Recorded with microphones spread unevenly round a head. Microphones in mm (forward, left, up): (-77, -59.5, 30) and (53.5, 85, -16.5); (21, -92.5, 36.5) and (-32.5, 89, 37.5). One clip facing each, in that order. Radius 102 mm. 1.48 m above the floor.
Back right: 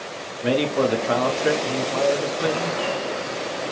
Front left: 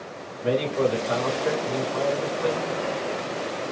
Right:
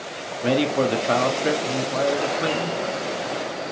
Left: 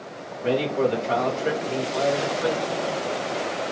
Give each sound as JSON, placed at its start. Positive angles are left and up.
{"t": 0.4, "sound": "a man speaking", "azimuth_deg": -100, "distance_m": 0.9}